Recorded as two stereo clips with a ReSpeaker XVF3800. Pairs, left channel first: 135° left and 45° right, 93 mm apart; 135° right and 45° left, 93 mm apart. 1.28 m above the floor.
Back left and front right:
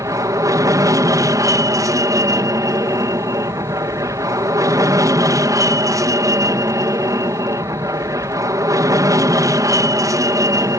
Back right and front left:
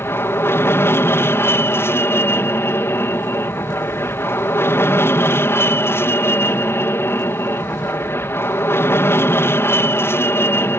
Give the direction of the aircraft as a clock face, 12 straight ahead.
3 o'clock.